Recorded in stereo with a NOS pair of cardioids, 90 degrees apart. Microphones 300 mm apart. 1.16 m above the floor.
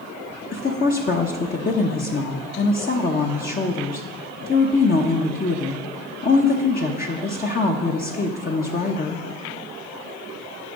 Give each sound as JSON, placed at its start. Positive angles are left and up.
{"t": 0.5, "sound": "a woman speaking", "azimuth_deg": 30, "distance_m": 0.9}